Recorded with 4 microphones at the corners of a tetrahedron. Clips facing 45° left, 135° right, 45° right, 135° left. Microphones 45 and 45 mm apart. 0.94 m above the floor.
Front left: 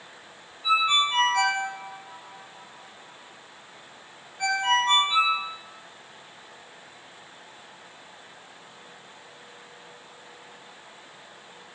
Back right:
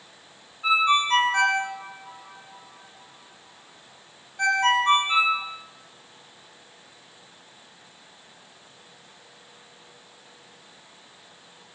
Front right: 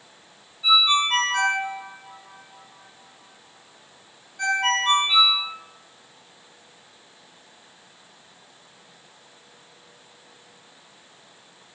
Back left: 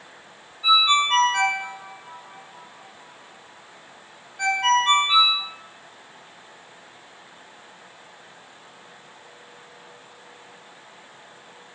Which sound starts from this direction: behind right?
A ringtone, at 0.6 s.